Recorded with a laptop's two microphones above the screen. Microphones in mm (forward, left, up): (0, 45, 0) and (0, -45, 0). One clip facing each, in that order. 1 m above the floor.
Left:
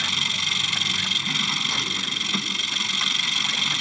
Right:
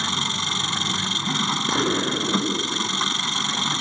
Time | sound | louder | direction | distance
0.0 | an engine running | right 4 dB | 30° right (ahead or behind) | ?
1.7 | an explosion | right 9 dB | 80° right | ?